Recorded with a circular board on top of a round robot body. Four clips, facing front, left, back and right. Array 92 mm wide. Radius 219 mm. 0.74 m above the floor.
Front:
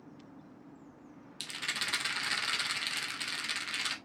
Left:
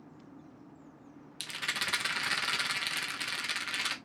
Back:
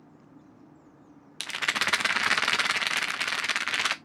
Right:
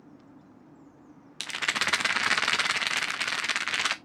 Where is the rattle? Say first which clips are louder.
Right 7 dB, back 10 dB; 145° right, 0.5 m.